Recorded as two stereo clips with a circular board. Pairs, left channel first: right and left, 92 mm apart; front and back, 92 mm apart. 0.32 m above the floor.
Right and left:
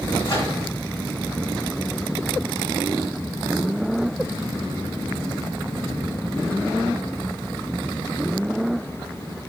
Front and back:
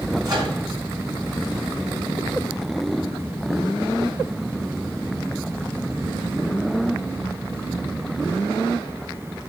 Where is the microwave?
135° right, 1.8 m.